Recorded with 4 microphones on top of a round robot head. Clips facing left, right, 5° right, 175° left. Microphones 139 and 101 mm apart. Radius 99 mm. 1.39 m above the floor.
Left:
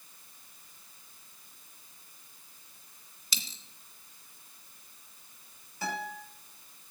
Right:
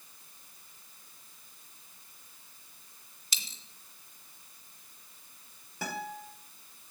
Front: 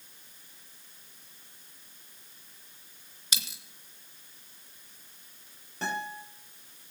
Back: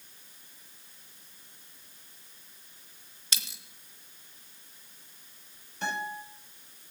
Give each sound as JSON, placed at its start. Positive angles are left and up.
{"t": 3.3, "sound": "a dropped coin", "azimuth_deg": 75, "distance_m": 2.5}
{"t": 5.8, "sound": "a guitar", "azimuth_deg": -50, "distance_m": 6.0}